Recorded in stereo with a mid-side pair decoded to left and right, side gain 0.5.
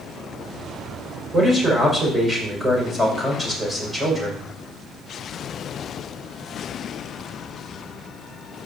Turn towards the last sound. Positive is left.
turn(degrees=-10)